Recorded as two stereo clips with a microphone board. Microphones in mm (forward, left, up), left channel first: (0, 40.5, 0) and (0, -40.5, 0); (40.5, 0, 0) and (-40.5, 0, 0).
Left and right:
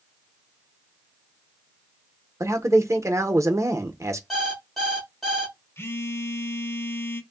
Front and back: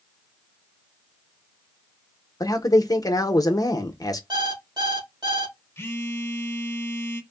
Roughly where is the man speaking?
Ahead right.